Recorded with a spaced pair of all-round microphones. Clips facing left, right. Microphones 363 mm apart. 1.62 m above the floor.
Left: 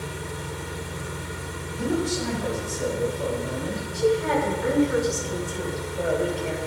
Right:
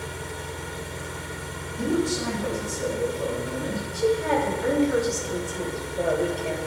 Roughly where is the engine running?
Centre.